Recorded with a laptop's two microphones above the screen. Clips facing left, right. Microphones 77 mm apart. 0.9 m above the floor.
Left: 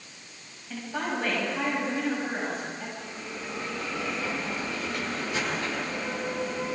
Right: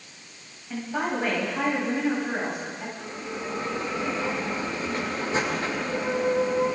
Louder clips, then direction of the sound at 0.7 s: Right 3 dB; 15° right (ahead or behind).